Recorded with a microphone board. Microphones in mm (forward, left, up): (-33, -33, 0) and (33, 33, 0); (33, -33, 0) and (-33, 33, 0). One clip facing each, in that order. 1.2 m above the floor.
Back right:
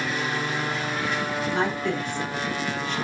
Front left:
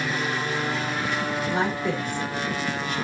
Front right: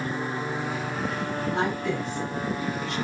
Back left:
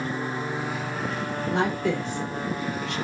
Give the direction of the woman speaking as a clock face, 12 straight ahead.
8 o'clock.